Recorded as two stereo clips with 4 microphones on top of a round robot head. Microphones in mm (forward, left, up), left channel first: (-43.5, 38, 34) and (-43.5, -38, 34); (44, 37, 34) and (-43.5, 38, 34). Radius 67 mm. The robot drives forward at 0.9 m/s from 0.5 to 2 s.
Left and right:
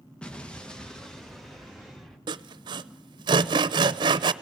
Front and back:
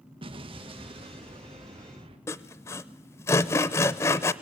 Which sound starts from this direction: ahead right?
Sawing, at 2.3 s.